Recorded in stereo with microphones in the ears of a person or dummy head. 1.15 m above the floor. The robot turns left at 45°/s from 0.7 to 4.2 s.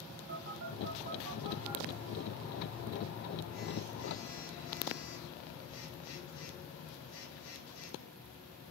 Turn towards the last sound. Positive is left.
turn(degrees=75)